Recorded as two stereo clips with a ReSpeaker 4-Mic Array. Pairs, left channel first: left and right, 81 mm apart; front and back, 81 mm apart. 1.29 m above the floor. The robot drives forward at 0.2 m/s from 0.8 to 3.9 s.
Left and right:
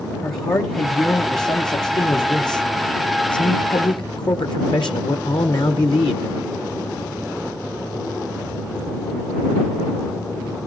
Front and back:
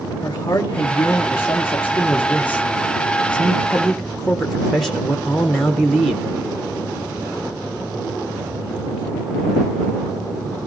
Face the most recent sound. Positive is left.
turn(degrees=90)